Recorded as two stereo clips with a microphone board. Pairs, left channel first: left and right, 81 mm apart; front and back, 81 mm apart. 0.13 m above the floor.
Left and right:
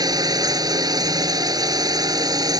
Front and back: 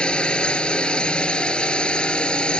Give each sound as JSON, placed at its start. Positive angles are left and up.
{"t": 0.0, "sound": "a drone", "azimuth_deg": -75}